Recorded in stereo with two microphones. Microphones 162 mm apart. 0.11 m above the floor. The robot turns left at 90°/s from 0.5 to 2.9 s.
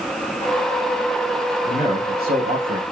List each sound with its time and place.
1.6 s a man speaking: 35° right, 4.5 m; by 2.8 s 140° right, 4.5 m